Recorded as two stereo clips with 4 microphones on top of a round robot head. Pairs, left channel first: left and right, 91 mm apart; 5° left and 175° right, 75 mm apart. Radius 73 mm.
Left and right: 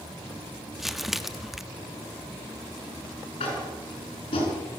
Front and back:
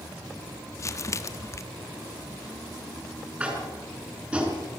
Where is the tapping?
115° left, 7 m.